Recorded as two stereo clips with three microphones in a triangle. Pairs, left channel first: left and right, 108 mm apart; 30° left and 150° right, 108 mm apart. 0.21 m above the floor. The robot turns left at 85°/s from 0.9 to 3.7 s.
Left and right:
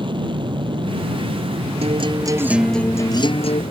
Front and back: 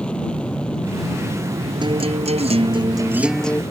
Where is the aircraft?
50° right; by 3.7 s 70° left.